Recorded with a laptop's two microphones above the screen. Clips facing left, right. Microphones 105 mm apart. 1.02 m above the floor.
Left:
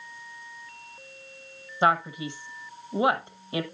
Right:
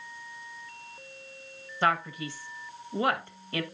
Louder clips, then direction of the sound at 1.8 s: Left 4 dB; 20° left (ahead or behind).